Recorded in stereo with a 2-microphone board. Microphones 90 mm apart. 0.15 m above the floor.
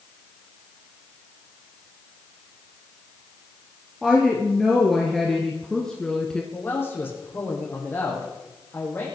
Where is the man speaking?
25° left (ahead or behind), 6.5 m.